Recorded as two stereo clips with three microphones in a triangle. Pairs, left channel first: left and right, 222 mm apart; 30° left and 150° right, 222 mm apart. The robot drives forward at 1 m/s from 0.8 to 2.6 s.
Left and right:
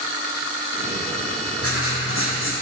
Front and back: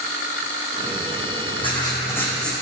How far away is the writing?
About 2 m.